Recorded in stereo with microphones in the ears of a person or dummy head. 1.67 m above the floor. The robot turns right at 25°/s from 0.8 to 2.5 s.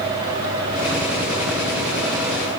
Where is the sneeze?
I don't hear a sneeze.